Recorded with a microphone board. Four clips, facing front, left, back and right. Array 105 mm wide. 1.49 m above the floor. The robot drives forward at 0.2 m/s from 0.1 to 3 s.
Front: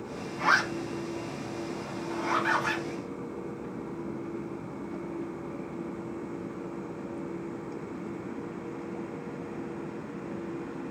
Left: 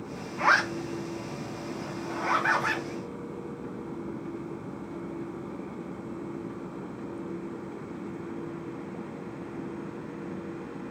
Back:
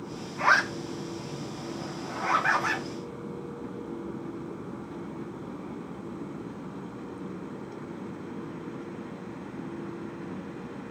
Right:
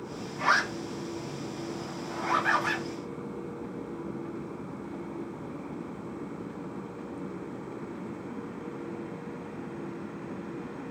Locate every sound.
0.4 s a zipper: 120° left, 0.8 m; by 2.8 s 150° left, 1.1 m